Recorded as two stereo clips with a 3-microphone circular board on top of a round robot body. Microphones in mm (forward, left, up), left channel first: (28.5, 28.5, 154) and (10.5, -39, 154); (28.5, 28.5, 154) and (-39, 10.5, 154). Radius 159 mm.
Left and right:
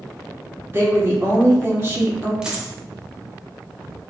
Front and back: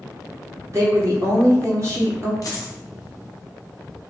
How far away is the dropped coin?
About 0.6 m.